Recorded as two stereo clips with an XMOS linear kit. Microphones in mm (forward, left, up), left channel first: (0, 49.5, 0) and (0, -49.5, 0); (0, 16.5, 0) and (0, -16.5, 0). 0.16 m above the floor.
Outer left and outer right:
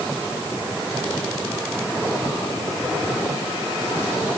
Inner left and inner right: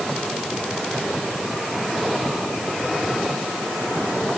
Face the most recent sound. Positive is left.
No sound to turn to.